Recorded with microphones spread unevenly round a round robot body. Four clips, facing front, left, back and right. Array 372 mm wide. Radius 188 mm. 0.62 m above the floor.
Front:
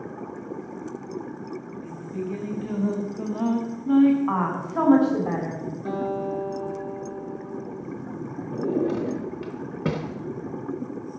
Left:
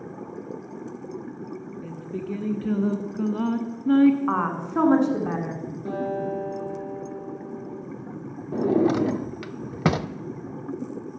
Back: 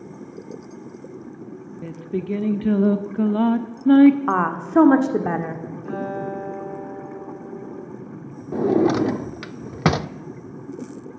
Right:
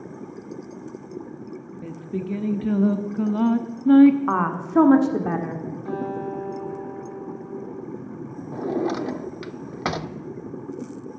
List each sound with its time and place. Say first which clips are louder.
1.8 s singing: right 5 dB, back 7 dB; 145° right, 1.1 m
4.3 s a woman speaking: right 2 dB, back 5 dB; 140° right, 1.8 m
5.8 s a guitar: left 2 dB, even; 70° left, 5 m
8.5 s a drawer: left 4 dB, back 7 dB; 160° left, 0.6 m